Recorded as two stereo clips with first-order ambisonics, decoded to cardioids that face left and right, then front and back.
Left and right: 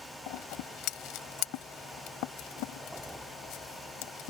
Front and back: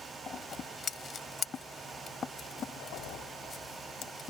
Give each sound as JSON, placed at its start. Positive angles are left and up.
{"t": 0.3, "sound": "scissors", "azimuth_deg": 65}